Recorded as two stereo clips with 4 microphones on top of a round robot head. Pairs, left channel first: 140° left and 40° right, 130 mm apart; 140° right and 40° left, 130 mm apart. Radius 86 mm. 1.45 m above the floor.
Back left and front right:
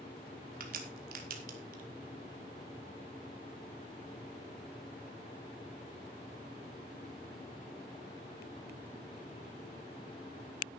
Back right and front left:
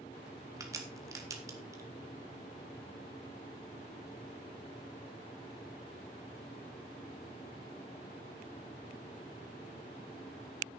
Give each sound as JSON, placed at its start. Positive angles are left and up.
{"t": 0.6, "sound": "a crack", "azimuth_deg": -25, "distance_m": 2.0}